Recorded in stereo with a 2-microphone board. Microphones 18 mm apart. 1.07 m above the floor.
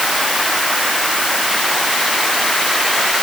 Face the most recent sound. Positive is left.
No sound to turn to.